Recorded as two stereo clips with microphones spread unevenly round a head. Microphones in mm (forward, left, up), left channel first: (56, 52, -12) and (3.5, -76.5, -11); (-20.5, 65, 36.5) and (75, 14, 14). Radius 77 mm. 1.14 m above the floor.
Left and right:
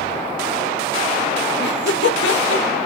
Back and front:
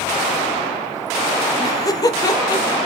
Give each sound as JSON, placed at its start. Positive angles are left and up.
{"t": 1.6, "sound": "laughter", "azimuth_deg": 90, "distance_m": 0.5}